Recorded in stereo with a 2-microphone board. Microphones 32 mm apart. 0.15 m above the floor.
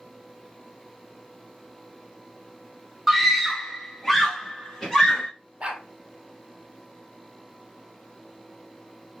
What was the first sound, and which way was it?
A scream, centre (ahead or behind).